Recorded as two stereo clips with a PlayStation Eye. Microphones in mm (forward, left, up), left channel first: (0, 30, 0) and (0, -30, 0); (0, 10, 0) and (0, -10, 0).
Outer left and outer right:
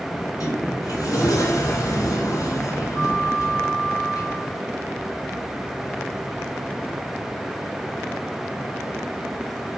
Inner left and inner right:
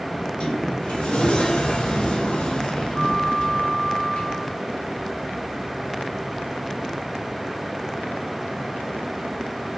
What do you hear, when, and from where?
0.1 s a sliding door: 65° left (ahead or behind), 4.5 m